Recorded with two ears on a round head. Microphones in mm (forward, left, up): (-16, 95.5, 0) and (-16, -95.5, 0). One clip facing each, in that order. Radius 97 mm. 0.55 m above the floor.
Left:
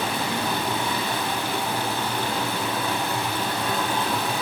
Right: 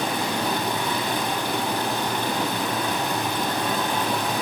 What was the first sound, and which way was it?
Running water, 15° right (ahead or behind).